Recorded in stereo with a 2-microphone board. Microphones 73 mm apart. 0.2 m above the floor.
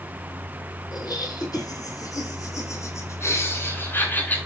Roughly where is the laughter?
Left.